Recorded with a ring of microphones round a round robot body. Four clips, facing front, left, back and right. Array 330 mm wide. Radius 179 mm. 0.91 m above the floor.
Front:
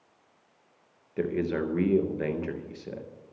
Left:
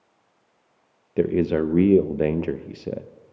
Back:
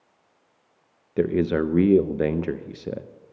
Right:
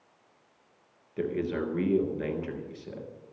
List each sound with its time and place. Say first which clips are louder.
1.2 s a man speaking: left 9 dB, back 7 dB; 125° left, 0.7 m